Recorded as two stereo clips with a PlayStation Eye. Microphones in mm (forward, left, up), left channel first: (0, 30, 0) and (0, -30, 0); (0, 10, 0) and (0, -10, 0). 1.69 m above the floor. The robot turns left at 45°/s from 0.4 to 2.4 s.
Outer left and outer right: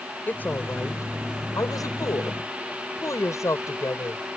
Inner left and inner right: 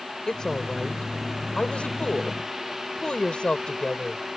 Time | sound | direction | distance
0.3 | a woman speaking | 145° left | ?